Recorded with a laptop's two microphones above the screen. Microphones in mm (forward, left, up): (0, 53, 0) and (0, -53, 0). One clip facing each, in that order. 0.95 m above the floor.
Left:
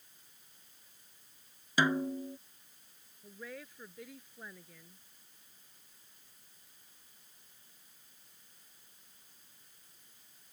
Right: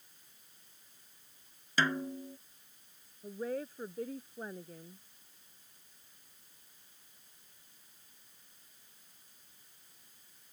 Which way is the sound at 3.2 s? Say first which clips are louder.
Right 10 dB; 35° right (ahead or behind).